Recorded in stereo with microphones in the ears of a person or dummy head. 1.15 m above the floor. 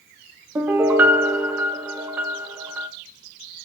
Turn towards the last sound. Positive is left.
turn(degrees=-10)  # may be behind; listen again after turning